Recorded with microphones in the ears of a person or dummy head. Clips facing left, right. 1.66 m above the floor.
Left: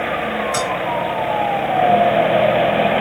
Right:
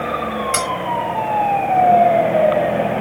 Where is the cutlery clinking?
50° right (ahead or behind), 4 m.